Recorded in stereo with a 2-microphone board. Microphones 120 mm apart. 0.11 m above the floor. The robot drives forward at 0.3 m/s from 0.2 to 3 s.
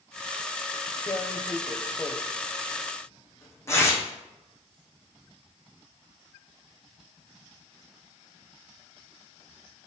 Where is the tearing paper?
30° left (ahead or behind), 1.3 m; by 4.0 s 25° left (ahead or behind), 1.8 m.